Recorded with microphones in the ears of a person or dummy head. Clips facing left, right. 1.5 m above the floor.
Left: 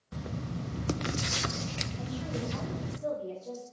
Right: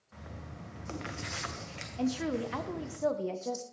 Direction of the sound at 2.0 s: 80° right.